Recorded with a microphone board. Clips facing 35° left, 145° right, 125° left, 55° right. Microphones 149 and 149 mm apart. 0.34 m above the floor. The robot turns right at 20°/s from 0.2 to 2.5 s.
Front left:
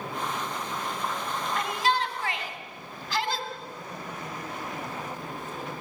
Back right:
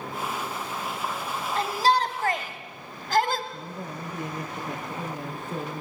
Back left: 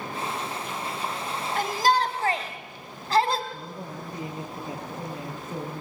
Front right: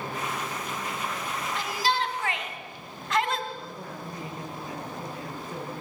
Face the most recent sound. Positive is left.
turn(degrees=-170)